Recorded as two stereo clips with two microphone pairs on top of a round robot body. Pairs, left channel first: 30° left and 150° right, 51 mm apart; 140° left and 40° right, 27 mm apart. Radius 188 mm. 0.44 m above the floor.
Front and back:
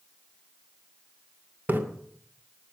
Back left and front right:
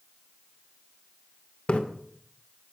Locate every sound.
1.7 s a splash: 160° left, 2.5 m